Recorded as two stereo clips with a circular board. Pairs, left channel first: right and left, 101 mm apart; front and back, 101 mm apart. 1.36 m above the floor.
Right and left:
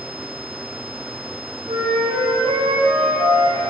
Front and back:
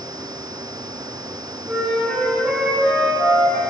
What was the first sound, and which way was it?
A flute, 95° left.